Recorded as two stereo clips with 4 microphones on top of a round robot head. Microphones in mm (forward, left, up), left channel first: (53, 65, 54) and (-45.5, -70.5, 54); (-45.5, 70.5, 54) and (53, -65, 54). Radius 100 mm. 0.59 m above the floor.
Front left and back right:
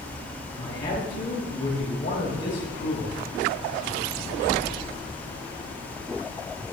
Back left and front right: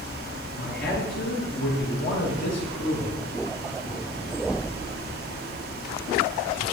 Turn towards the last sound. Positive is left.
turn(degrees=115)